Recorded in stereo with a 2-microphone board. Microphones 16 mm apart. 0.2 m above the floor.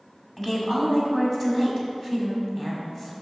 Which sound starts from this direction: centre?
A woman speaking, at 0.4 s.